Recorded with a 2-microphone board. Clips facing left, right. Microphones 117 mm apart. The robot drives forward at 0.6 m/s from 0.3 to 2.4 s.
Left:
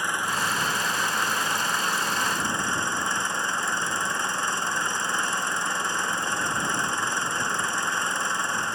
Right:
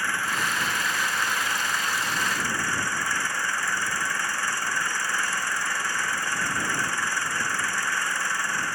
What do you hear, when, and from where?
0.0 s an engine running: 20° left (ahead or behind)